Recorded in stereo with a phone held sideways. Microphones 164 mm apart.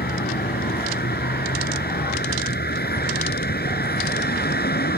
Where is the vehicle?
75° left (ahead or behind).